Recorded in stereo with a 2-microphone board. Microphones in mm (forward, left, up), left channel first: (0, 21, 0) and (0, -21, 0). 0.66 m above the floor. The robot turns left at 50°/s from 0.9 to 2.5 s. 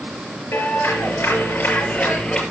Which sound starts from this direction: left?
A clap, at 0.5 s.